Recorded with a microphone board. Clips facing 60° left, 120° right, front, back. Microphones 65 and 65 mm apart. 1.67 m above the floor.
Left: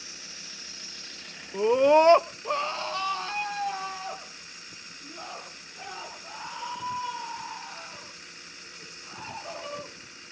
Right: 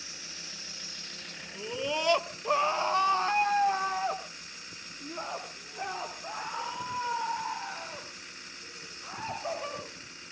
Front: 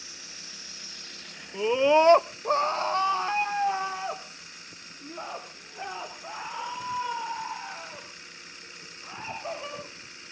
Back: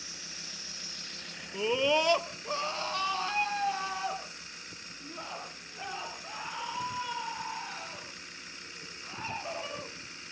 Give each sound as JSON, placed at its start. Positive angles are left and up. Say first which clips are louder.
{"t": 1.5, "sound": "a scream", "louder": "left 14 dB, front 7 dB", "azimuth_deg": 75, "distance_m": 0.9}